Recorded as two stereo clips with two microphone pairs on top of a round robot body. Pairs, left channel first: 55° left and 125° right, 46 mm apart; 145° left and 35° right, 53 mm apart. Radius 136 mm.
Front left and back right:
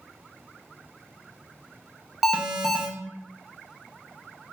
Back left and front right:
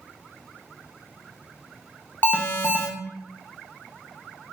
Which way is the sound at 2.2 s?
165° left.